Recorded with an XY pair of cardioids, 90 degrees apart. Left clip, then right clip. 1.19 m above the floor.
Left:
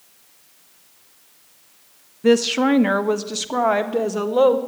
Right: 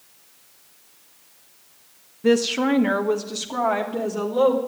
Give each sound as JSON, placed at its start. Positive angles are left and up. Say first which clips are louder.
{"t": 2.2, "sound": "a woman speaking", "louder": "left 3 dB", "azimuth_deg": 20, "distance_m": 1.0}